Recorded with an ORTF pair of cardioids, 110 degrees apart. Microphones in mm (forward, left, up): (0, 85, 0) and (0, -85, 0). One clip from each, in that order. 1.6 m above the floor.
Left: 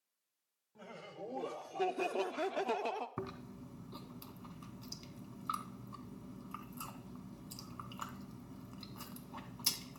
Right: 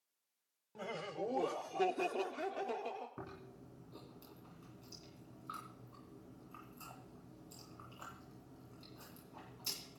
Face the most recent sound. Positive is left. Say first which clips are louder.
# left 6 dB
turn(degrees=65)